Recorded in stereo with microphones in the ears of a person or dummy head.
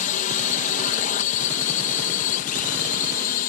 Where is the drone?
40° left (ahead or behind); by 3.5 s 45° left (ahead or behind).